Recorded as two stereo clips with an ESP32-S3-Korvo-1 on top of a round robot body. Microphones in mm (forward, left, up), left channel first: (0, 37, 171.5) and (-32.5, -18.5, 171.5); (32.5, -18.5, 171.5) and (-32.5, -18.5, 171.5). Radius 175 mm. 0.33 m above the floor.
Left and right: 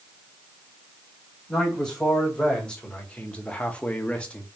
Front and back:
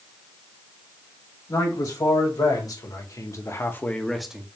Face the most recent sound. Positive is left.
turn(degrees=120)